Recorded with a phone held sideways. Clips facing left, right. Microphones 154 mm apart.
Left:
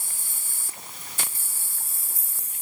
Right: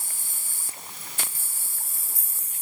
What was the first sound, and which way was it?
Only background noise.